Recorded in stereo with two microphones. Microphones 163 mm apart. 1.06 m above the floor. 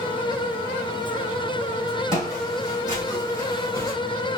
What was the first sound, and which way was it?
Footsteps, 25° left (ahead or behind).